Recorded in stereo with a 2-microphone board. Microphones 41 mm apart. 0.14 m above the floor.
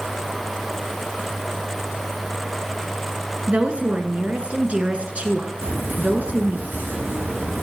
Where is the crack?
60° right (ahead or behind), 7 m.